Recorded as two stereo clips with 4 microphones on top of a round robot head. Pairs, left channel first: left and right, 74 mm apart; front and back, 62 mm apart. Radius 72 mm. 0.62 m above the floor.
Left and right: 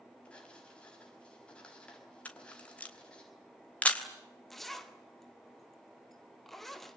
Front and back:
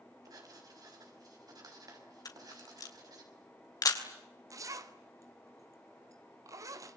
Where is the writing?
165° left, 5.5 m.